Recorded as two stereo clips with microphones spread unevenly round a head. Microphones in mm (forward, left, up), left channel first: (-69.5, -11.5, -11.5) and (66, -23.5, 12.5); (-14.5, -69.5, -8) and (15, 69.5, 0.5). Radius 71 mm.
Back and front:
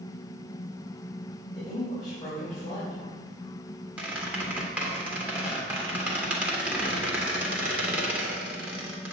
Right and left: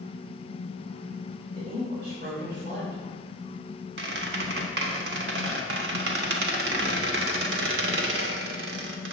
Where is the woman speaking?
110° left, 4.5 m.